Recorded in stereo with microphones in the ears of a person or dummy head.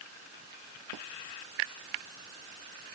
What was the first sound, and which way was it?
Only background noise.